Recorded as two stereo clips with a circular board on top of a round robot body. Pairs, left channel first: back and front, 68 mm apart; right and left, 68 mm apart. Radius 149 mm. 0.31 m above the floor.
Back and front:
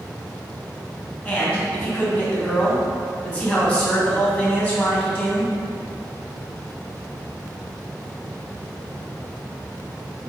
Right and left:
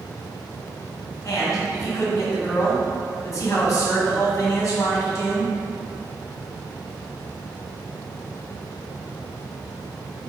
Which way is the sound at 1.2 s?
125° right.